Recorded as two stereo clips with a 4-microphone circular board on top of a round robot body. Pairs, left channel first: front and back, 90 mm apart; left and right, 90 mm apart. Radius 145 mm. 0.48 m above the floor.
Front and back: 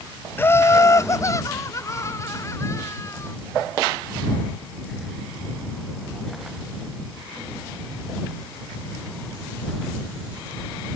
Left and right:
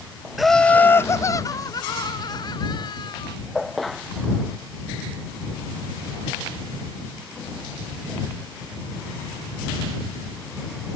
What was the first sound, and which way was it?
Laughter, 5° right.